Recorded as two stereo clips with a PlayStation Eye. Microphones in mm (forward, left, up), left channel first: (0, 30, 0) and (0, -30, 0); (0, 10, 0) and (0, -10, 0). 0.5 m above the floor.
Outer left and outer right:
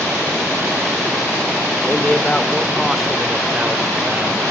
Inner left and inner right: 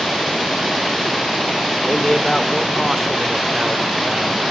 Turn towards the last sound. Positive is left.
turn(degrees=-30)  # may be behind; listen again after turning